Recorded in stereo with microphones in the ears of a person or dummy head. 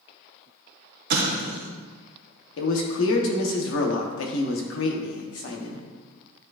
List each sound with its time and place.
1.1 s an explosion: 60° right (ahead or behind), 0.8 m
2.6 s a man speaking: 75° left (ahead or behind), 1.0 m